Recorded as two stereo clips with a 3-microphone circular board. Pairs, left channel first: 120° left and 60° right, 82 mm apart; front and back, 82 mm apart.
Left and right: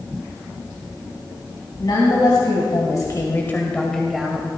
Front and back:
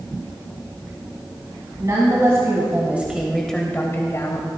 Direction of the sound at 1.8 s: 140° left.